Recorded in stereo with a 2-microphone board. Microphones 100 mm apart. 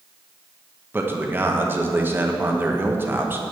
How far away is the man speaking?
About 1.1 m.